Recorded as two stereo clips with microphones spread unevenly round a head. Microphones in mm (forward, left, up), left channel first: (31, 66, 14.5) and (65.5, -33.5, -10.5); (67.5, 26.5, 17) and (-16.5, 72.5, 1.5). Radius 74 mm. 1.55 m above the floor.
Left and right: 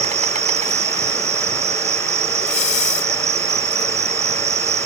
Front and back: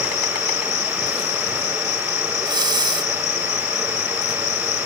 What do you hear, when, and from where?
0.0 s an insect: 55° right
2.4 s breathing: 105° left